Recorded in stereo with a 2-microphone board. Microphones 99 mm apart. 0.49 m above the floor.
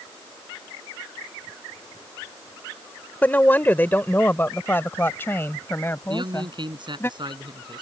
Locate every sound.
3.2 s a woman speaking: 20° left (ahead or behind); by 7.1 s 25° left (ahead or behind)
6.1 s a man speaking: 55° right (ahead or behind)